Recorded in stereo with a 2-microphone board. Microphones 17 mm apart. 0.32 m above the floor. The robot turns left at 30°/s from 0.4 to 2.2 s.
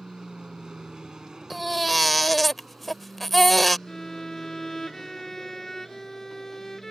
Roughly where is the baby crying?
Centre.